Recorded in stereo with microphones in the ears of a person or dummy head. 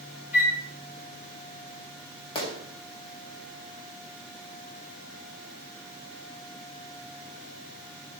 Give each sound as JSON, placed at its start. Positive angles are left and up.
{"t": 0.3, "sound": "a flute", "side_deg": 40, "distance_m": 3.0}
{"t": 2.4, "sound": "a gunshot", "side_deg": 25, "distance_m": 1.9}